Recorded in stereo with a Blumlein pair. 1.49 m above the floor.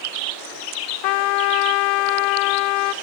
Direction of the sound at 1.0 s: 40° left.